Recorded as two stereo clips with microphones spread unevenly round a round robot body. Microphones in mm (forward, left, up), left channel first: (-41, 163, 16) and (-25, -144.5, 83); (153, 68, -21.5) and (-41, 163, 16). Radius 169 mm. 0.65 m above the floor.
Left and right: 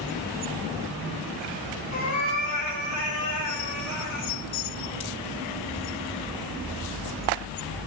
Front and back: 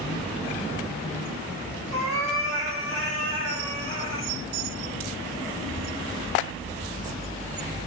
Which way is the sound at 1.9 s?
145° left.